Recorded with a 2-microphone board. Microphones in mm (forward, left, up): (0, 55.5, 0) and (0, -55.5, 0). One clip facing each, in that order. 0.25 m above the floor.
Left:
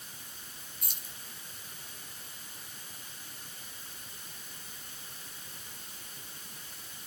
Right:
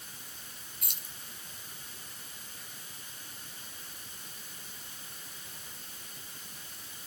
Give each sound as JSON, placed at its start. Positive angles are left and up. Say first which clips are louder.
{"t": 0.8, "sound": "keys jangling", "louder": "even", "side_deg": -70, "distance_m": 3.0}